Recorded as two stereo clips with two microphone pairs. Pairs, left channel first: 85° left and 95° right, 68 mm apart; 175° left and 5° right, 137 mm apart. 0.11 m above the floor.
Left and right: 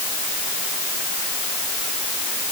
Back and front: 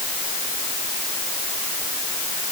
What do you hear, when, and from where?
Only background noise.